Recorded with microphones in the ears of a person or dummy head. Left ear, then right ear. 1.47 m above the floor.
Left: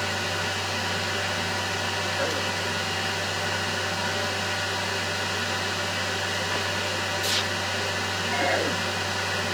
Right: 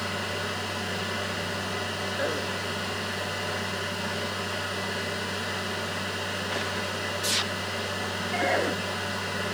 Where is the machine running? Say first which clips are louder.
Left 3 dB; 60° left (ahead or behind), 2 m.